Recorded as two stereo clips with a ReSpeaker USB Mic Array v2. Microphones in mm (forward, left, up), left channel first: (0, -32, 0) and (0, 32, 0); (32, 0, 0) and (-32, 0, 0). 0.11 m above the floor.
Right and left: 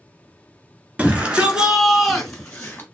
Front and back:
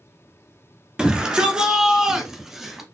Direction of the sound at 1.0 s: 120° left.